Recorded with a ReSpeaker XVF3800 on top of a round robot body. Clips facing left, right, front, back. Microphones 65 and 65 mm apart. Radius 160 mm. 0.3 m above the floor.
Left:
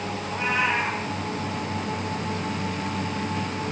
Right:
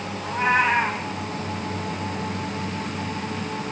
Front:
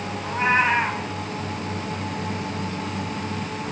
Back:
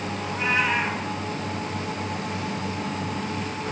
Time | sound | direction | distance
0.2 | a cat meowing | 50° right | 1.9 m